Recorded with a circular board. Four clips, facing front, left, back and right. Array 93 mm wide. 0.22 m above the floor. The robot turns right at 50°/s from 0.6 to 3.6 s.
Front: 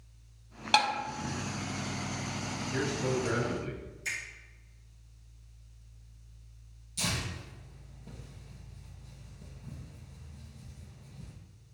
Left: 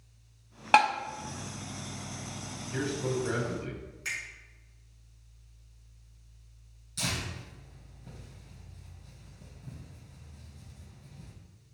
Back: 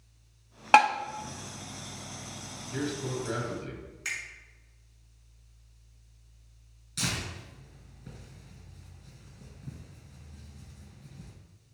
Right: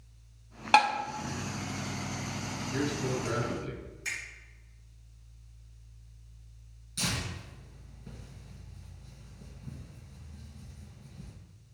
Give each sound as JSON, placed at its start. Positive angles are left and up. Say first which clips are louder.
{"t": 0.7, "sound": "tapping", "louder": "even, back 7 dB", "azimuth_deg": 165, "distance_m": 0.5}
{"t": 2.7, "sound": "a man speaking", "louder": "left 1 dB, front 1 dB", "azimuth_deg": 25, "distance_m": 1.1}
{"t": 4.0, "sound": "a finger snap", "louder": "left 1 dB, back 1 dB", "azimuth_deg": 165, "distance_m": 2.5}
{"t": 7.0, "sound": "tearing paper", "louder": "even, back 1 dB", "azimuth_deg": -175, "distance_m": 2.5}